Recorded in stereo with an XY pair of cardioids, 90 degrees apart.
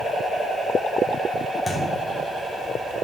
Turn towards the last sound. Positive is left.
turn(degrees=15)